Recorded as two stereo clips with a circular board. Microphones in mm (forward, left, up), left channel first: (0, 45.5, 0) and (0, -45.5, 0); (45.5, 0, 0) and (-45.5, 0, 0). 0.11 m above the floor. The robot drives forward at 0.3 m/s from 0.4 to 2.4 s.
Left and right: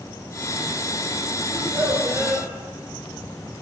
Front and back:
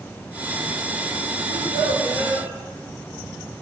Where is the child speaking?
145° right, 3 m; by 2.5 s 150° right, 3 m.